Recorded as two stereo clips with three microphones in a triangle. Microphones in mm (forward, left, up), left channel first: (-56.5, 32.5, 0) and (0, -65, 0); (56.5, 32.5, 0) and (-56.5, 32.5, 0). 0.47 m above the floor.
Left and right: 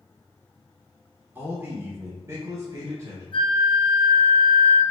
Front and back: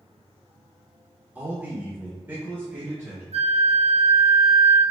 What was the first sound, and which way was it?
A man speaking, 115° right.